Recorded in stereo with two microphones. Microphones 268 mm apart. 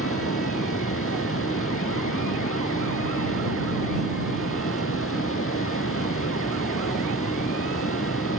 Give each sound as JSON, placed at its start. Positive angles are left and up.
{"t": 0.0, "sound": "running water", "side_deg": 50}